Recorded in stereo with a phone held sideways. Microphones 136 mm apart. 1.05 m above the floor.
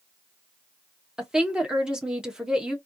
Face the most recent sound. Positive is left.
turn(degrees=-5)  # may be behind; listen again after turning